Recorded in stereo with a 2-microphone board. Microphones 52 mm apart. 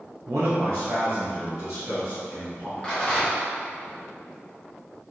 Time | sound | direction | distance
0.3 | a man speaking | 85° right | 0.5 m
2.8 | a rattle | 20° left (ahead or behind) | 0.8 m